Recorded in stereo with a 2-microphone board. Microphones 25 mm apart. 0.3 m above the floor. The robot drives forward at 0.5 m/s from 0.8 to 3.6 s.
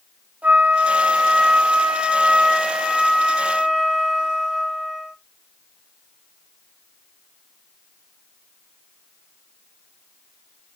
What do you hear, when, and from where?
0.4 s a flute: 85° right, 0.6 m; by 5.1 s 20° right (ahead or behind), 1.4 m